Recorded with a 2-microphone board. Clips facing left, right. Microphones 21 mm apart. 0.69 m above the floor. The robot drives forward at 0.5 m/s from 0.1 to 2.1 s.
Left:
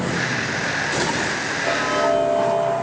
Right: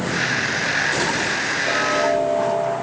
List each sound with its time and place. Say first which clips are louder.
1.6 s ticking: left 1 dB; 30° left (ahead or behind), 9 m